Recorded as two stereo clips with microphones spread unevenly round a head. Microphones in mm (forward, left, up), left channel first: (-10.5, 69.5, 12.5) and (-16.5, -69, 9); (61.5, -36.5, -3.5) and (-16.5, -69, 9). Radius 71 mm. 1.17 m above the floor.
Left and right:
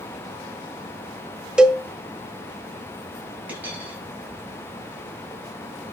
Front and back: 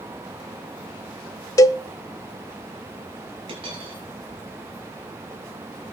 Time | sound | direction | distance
1.6 | a cowbell | 10° right | 0.6 m
3.5 | a dropped coin | 170° right | 8.5 m